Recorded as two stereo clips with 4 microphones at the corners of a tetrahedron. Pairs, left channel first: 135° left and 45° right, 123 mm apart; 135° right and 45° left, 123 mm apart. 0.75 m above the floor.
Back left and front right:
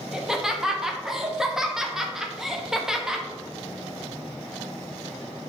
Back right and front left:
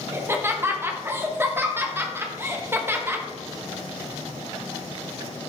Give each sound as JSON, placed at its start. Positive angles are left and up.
{"t": 0.1, "sound": "laughter", "azimuth_deg": 30, "distance_m": 0.7}